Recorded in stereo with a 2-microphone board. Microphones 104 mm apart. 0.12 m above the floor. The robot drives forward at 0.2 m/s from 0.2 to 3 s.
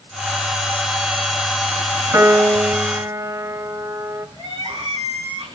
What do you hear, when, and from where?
2.1 s a piano: 30° right (ahead or behind), 1.5 m; by 4.3 s 25° right (ahead or behind), 1.6 m
4.4 s crying: 60° right (ahead or behind), 9.5 m